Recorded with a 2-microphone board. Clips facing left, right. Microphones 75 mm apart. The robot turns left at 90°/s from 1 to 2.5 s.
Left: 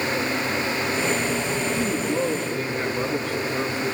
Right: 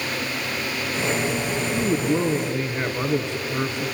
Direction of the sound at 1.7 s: 85° right.